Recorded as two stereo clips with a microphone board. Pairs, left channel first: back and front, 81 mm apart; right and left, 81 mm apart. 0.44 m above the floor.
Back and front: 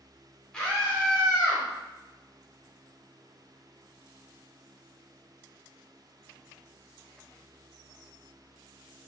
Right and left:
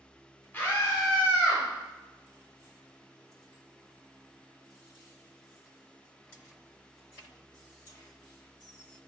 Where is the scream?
110° right, 0.9 m; by 1.6 s 125° right, 1.4 m.